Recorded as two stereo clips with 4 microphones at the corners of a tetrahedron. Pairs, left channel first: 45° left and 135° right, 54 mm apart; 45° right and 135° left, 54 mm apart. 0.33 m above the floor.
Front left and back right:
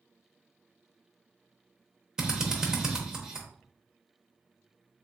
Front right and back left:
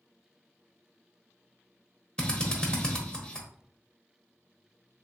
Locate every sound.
2.2 s a drill: 80° right, 0.7 m